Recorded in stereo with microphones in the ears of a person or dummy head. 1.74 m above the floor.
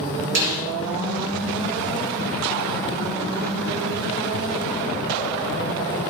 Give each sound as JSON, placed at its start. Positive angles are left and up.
{"t": 0.3, "sound": "a snare drum", "side_deg": -60, "distance_m": 3.5}